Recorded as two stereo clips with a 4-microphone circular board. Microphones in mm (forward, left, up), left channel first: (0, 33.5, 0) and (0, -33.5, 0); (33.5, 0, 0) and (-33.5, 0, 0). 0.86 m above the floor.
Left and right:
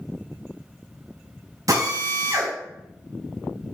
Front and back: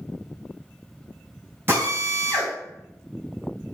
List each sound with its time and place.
1.7 s a drill: 120° right, 4.5 m